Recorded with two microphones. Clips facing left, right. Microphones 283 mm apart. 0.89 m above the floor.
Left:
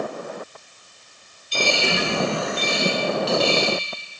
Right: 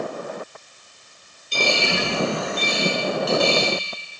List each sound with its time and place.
1.5 s a dropped coin: 55° right (ahead or behind), 3.5 m